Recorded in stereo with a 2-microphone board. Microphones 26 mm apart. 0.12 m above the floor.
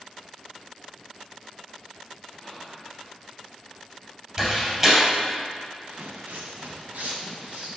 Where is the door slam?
30° right (ahead or behind), 2.5 m.